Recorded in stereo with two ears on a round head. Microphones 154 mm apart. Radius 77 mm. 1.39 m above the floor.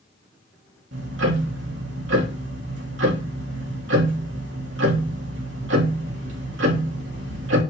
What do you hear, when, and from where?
0.9 s ticking: 75° right (ahead or behind), 3 m